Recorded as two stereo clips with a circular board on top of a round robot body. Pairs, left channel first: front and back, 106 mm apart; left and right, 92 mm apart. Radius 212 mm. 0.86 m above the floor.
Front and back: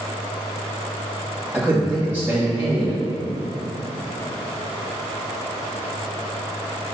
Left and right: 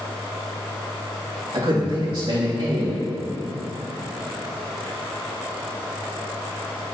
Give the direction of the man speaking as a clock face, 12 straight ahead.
4 o'clock.